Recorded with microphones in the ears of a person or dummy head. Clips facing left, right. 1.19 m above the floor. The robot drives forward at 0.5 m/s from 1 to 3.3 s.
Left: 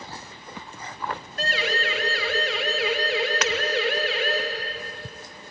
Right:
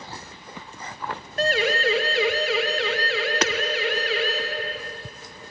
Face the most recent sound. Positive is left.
turn(degrees=-30)  # may be behind; listen again after turning